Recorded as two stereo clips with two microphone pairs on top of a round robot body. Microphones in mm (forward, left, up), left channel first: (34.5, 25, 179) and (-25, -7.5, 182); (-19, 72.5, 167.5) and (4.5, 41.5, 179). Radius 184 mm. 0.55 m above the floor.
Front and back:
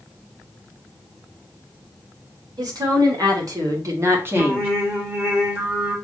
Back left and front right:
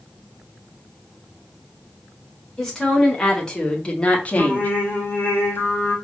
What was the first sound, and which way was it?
A woman speaking, 155° right.